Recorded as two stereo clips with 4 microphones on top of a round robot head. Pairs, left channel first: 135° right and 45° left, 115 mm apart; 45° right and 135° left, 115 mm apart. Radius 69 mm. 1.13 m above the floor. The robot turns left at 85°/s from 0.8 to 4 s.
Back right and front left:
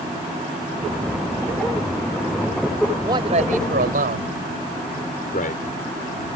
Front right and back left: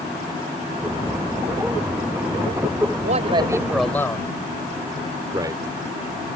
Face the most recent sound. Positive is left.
turn(degrees=-160)